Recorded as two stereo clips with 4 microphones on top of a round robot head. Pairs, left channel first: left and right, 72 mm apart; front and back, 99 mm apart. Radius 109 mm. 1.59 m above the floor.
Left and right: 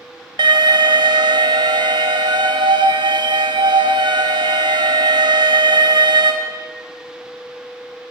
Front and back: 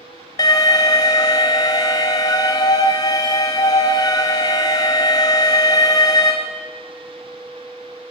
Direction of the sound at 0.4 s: 60° right.